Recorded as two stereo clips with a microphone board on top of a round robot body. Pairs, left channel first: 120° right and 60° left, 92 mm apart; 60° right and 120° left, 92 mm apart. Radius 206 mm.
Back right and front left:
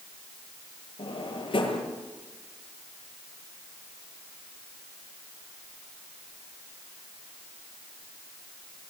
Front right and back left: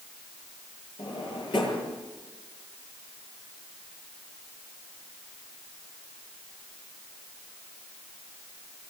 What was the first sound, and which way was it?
A drawer, 95° right.